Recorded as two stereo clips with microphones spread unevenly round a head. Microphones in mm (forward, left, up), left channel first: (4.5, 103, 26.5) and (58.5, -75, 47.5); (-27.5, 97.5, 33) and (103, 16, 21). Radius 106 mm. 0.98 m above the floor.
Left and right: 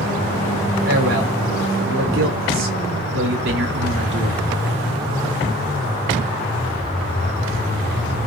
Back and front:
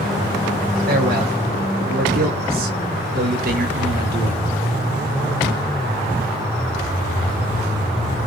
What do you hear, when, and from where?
0.9 s a man speaking: 75° right, 4.5 m; by 4.5 s 45° right, 3 m